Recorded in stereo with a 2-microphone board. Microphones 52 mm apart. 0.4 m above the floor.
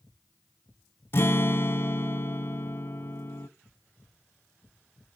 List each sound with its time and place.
1.1 s a guitar: 50° left (ahead or behind), 0.7 m